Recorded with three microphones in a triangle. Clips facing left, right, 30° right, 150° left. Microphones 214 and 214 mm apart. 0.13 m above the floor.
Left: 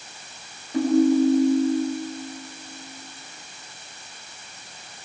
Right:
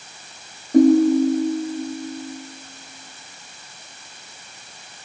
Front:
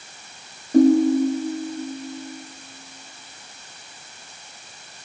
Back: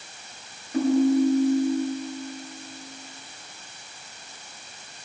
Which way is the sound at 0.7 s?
65° right.